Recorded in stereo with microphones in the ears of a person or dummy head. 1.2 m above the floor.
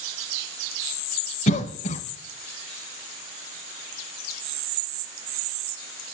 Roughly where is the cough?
Left.